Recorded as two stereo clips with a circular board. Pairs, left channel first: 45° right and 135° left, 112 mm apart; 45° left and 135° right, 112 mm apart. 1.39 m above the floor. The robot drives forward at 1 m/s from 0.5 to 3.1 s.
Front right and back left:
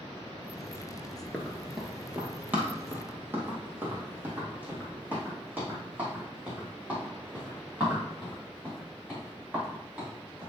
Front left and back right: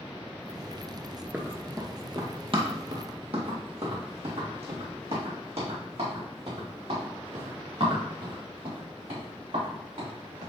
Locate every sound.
1.3 s running footsteps: 85° right, 1.4 m; by 10.5 s 145° right, 8 m